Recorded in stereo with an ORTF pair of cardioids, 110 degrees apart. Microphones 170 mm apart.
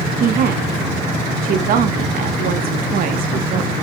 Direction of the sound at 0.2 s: 60° right.